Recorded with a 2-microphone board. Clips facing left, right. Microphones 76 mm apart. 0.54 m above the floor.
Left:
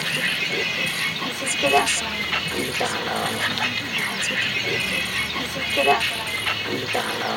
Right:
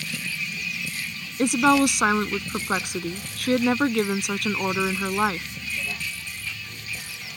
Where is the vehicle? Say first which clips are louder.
Left 7 dB; 65° left (ahead or behind).